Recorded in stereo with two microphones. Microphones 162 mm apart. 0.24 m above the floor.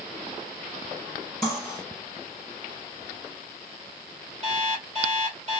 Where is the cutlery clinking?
55° right (ahead or behind), 2.5 m.